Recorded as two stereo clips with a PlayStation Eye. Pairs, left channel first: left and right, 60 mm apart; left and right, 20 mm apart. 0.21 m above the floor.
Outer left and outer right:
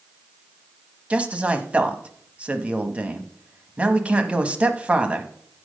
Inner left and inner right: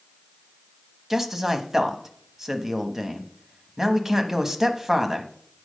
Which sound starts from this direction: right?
A man speaking, at 1.1 s.